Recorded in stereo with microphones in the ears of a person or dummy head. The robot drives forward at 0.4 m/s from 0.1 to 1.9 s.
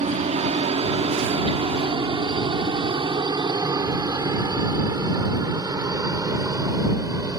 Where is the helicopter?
30° right (ahead or behind); by 7.4 s 15° right (ahead or behind).